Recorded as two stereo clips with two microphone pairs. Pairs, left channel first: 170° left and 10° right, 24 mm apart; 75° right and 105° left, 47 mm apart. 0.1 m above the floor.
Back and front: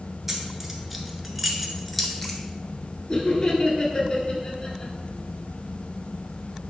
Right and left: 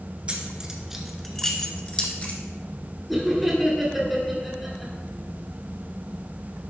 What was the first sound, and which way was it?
Keys jangling, 60° left.